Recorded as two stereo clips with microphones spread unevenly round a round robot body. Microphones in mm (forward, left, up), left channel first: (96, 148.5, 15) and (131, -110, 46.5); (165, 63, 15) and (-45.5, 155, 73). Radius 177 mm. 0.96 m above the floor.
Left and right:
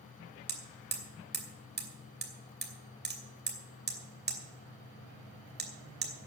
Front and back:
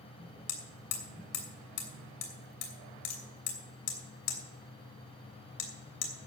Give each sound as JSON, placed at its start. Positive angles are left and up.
{"t": 0.5, "sound": "hammering", "azimuth_deg": -30, "distance_m": 2.5}